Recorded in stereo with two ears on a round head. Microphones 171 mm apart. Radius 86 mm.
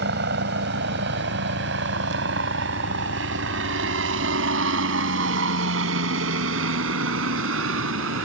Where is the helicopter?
60° right (ahead or behind); by 8.2 s 75° right (ahead or behind).